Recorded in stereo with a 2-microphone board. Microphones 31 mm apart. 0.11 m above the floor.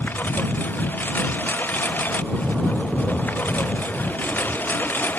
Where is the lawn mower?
85° left; by 5.2 s 80° left.